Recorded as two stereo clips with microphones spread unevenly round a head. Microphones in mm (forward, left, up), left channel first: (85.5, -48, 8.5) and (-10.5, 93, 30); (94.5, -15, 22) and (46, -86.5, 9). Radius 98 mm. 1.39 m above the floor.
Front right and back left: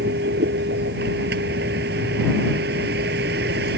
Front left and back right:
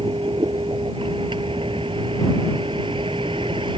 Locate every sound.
0.0 s a vehicle: 170° left